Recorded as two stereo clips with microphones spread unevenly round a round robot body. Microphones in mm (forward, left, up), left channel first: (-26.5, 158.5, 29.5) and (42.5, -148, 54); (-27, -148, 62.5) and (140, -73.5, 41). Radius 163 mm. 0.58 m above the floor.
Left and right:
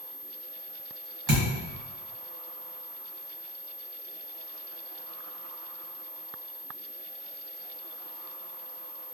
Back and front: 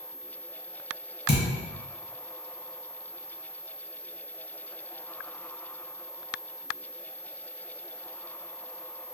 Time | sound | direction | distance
1.3 | a thud | 100° right | 1.5 m